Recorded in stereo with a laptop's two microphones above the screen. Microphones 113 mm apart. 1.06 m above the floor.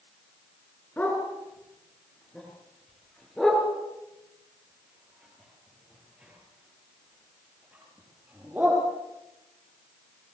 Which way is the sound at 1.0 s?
15° left (ahead or behind).